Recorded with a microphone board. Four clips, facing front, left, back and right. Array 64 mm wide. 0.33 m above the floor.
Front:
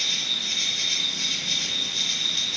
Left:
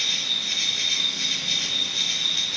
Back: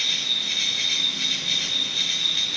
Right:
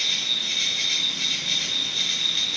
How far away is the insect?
About 1.3 m.